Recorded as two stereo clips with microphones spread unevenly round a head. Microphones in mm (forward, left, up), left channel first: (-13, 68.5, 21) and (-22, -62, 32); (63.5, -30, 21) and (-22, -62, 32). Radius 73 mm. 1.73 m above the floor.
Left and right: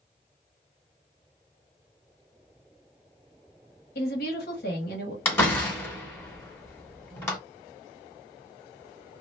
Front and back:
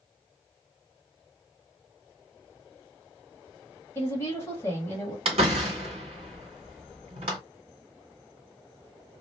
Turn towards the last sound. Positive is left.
turn(degrees=160)